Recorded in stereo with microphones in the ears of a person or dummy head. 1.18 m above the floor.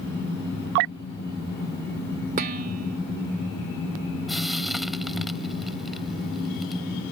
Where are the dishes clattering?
45° right (ahead or behind).